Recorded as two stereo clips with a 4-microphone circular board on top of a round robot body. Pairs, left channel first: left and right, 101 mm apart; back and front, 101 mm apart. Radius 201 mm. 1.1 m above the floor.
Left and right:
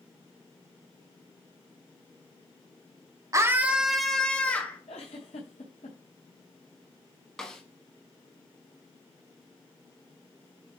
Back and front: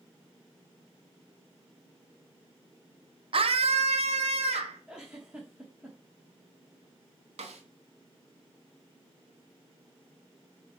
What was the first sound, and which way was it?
A scream, 30° right.